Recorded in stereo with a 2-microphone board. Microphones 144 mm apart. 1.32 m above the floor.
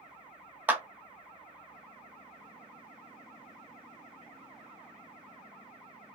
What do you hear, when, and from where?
0.7 s a clap: 10° right (ahead or behind), 0.7 m